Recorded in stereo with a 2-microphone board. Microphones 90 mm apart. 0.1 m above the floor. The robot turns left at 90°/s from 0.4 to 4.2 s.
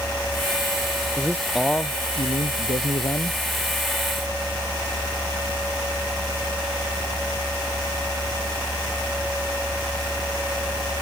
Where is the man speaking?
140° right; by 3.4 s 20° left.